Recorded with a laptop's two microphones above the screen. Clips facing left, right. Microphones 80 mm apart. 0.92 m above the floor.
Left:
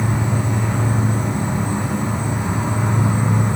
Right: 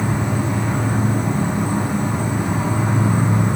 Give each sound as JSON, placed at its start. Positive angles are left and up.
{"t": 0.0, "sound": "an insect", "side_deg": -50, "distance_m": 1.1}